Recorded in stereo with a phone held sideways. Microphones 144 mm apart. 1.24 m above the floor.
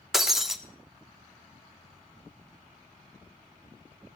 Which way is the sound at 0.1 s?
Centre (ahead or behind).